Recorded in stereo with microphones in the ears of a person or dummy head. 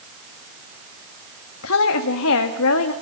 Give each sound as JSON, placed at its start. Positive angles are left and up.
{"t": 1.6, "sound": "a woman speaking", "side_deg": 80, "distance_m": 1.9}